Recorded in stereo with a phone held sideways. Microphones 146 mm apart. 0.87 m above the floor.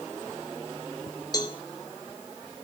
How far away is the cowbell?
About 1.3 m.